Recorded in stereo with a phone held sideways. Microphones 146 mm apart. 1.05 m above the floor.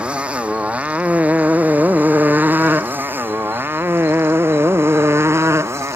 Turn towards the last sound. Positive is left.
turn(degrees=-20)  # may be behind; listen again after turning